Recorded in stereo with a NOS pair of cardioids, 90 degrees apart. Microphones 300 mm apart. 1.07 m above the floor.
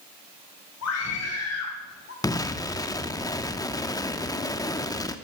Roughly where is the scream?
Ahead left.